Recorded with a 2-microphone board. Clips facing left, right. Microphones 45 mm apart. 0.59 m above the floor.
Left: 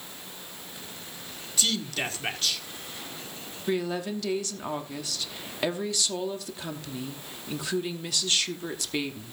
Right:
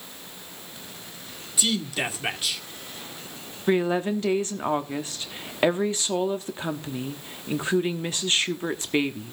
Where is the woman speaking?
30° right (ahead or behind), 1.0 m.